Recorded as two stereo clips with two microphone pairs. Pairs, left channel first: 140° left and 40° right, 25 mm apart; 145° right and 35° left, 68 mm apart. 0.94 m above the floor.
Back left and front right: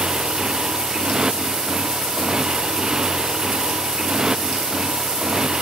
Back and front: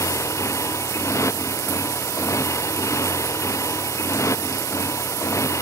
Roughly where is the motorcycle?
Right.